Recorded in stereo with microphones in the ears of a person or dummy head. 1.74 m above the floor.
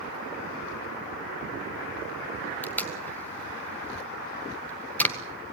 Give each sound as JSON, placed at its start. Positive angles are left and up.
{"t": 2.6, "sound": "tape being pulled", "side_deg": 15, "distance_m": 1.7}